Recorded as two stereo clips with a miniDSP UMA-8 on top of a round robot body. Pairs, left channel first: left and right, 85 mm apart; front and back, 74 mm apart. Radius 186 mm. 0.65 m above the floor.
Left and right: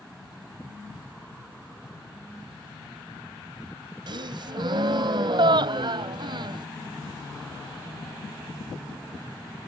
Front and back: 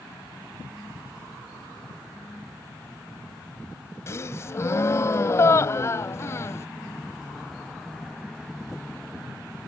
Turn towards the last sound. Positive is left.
turn(degrees=-55)